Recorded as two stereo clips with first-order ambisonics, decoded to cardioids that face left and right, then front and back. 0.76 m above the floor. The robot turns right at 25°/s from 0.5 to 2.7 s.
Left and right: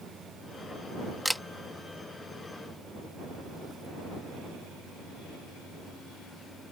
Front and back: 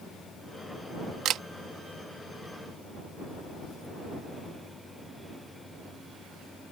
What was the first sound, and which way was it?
A camera shutter, straight behind.